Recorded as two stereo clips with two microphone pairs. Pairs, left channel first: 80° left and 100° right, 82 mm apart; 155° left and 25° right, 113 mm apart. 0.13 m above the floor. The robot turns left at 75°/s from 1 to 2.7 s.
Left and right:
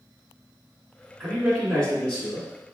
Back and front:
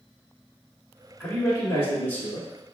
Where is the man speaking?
170° right, 1.4 m; by 2.5 s 95° left, 1.4 m.